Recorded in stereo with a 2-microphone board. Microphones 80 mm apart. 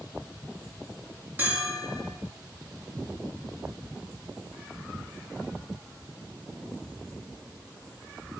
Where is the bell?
20° right (ahead or behind), 7 m.